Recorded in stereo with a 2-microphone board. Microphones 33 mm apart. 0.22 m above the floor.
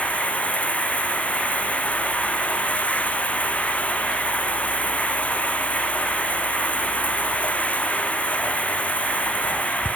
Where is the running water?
40° left (ahead or behind).